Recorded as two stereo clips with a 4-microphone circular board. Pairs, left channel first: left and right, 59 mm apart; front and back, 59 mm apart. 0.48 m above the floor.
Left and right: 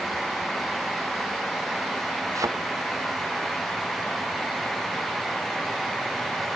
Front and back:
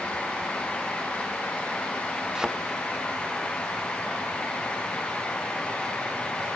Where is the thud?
100° right.